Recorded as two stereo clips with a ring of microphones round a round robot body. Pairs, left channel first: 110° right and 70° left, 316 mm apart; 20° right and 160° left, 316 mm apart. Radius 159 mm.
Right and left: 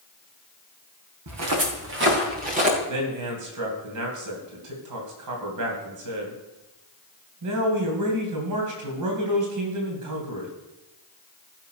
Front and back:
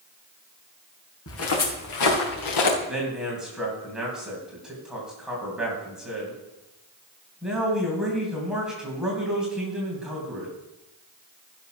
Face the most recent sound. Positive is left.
turn(degrees=70)